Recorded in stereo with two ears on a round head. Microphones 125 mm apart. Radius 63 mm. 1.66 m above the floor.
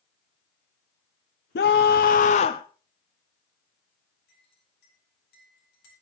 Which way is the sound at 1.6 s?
80° left.